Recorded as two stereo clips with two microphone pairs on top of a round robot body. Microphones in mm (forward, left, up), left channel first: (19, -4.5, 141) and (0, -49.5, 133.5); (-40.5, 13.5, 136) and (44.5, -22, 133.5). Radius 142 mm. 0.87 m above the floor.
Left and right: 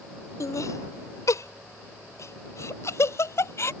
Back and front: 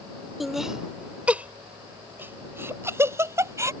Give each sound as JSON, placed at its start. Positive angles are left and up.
{"t": 0.4, "sound": "laughter", "azimuth_deg": 65}